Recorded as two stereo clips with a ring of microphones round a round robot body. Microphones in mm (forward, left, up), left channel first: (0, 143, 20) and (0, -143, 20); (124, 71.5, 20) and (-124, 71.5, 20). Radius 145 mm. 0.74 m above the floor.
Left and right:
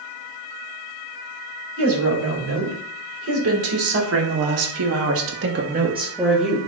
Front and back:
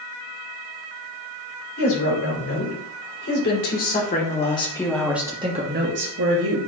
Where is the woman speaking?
45° right, 5 m; by 6.6 s straight behind, 1.8 m.